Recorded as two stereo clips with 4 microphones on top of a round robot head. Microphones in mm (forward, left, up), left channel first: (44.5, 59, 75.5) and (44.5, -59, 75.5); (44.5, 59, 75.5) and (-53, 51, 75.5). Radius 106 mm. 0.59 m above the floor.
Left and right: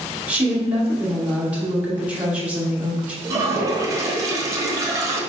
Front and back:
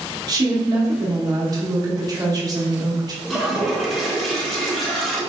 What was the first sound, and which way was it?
A woman speaking, 160° right.